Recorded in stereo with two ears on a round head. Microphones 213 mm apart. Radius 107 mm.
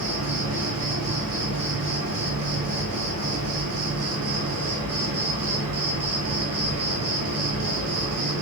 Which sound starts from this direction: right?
An insect, at 0.0 s.